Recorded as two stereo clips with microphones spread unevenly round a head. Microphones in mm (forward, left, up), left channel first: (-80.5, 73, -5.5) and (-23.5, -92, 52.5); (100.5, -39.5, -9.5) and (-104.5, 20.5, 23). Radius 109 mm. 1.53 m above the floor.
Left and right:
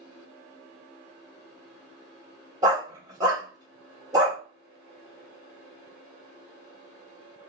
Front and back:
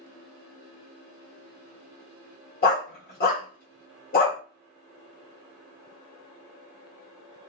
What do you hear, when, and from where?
2.6 s a dog barking: 50° right, 1.3 m